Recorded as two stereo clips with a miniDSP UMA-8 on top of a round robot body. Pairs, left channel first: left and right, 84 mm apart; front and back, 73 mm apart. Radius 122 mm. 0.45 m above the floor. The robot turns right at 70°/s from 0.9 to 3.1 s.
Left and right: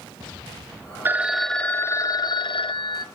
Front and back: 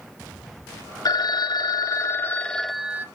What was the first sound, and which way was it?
A phone ringing, 25° right.